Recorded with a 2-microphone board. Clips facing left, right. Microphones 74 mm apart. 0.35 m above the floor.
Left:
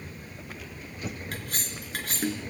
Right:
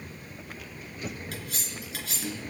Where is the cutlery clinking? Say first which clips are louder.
Left 2 dB; 40° left (ahead or behind), 3.5 m.